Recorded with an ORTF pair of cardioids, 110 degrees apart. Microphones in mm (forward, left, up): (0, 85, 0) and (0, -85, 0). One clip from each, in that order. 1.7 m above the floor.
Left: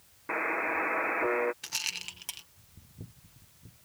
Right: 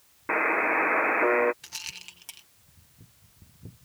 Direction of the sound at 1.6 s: 25° left.